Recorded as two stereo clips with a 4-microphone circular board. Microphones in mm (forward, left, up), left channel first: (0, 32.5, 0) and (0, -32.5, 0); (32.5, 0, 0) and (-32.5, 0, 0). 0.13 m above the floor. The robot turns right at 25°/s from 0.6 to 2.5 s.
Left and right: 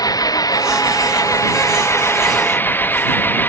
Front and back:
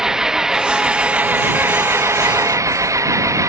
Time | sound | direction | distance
0.0 | an engine running | 100° left | ?